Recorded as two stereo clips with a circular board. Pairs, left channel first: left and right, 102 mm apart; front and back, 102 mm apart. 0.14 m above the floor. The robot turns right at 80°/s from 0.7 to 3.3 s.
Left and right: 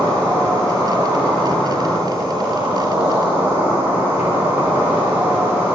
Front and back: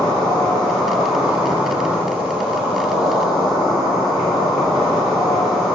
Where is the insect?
65° left, 1.5 m; by 5.8 s 90° right, 1.5 m.